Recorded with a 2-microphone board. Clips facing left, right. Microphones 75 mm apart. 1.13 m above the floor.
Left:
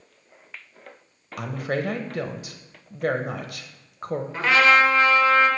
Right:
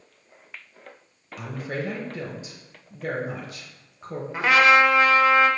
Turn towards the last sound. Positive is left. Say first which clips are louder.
# right 1 dB
turn(degrees=-15)  # may be behind; listen again after turning